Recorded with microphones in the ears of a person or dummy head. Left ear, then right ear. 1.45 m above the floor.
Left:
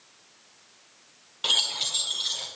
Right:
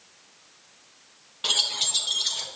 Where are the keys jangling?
5° left (ahead or behind), 0.6 m; by 2.5 s 5° right (ahead or behind), 1.0 m.